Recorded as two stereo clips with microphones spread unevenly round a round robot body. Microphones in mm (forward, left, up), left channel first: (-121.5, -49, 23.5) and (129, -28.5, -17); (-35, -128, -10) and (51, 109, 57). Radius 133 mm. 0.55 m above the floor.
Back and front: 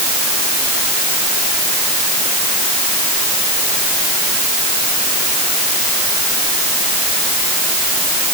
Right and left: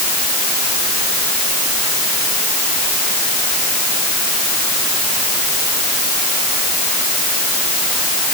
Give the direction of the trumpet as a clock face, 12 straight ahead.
I don't hear a trumpet.